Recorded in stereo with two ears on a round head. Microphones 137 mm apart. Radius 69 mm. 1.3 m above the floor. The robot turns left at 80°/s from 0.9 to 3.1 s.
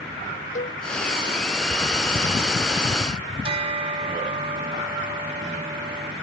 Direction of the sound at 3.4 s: 35° right (ahead or behind).